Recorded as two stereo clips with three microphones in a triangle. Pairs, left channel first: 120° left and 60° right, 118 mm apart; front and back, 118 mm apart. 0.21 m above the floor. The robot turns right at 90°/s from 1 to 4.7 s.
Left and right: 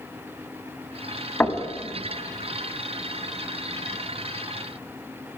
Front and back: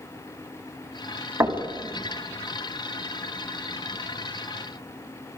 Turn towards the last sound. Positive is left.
turn(degrees=115)